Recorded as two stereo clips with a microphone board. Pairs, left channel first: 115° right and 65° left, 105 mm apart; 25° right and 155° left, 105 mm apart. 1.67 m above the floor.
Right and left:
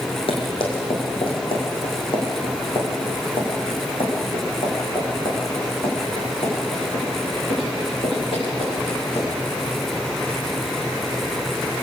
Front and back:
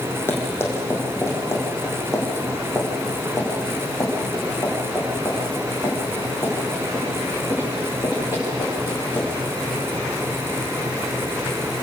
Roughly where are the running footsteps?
Right.